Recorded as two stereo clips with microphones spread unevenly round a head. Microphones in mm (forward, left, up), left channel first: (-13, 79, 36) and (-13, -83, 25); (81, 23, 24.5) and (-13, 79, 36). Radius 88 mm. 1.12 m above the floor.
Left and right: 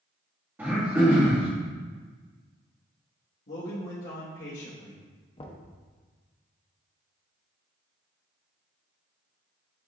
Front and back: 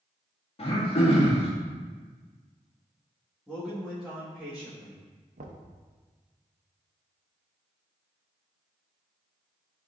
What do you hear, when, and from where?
0.6 s throat clearing: 10° right, 1.8 m
3.5 s a man speaking: 65° left, 1.8 m
5.4 s knocking: 150° left, 0.8 m